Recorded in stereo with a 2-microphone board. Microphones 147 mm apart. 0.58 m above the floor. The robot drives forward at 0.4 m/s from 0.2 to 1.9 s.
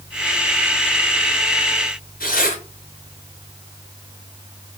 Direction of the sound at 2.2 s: 85° left.